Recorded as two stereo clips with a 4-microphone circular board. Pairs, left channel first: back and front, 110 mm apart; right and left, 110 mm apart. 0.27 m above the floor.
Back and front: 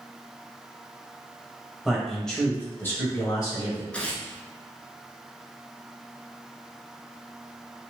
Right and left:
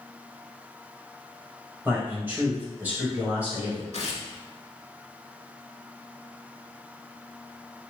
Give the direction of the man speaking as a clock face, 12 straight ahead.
10 o'clock.